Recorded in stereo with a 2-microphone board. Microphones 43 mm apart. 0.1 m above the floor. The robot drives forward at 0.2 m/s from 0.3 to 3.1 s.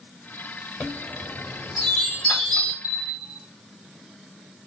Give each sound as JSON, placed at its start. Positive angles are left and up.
{"t": 0.8, "sound": "a chime", "side_deg": 20, "distance_m": 3.0}
{"t": 2.8, "sound": "a bell", "side_deg": -20, "distance_m": 1.6}